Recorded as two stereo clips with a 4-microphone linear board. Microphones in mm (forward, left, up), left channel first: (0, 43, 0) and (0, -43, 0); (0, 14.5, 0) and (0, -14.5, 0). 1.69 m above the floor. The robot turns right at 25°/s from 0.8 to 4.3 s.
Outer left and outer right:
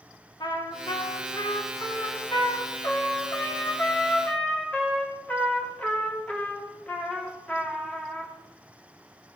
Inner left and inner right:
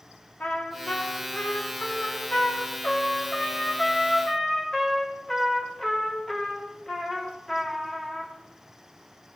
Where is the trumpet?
75° left, 2 m; by 8.3 s 165° left, 2 m.